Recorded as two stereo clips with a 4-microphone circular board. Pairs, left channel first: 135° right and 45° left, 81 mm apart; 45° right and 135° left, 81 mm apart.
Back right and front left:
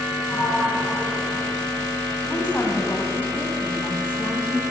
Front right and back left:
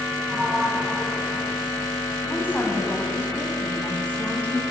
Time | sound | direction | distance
0.3 | a sliding door | 160° right | 1.7 m
2.2 | a woman speaking | 90° right | 1.7 m